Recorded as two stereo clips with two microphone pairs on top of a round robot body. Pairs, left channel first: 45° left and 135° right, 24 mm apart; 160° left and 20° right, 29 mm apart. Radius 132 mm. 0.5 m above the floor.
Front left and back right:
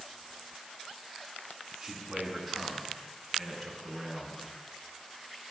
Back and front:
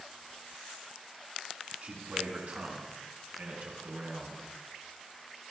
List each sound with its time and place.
1.8 s a man speaking: 50° right, 7.5 m; by 4.4 s 25° right, 8.5 m